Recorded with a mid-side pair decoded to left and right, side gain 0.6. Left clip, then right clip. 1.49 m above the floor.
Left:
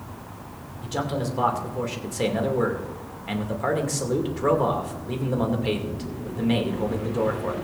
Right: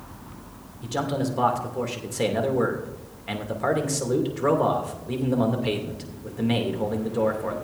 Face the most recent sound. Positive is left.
turn(degrees=-5)